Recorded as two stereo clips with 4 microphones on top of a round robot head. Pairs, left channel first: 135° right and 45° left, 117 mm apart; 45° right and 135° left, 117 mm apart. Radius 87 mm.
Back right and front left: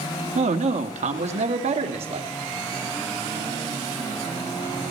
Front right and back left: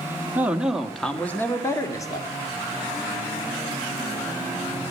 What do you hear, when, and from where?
0.3 s a man speaking: 60° left, 1.2 m; by 2.3 s 10° left, 1.8 m